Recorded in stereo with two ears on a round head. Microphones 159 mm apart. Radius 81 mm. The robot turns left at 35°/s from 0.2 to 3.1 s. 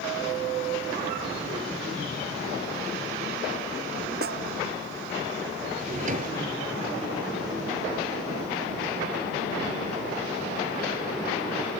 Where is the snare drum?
55° right (ahead or behind).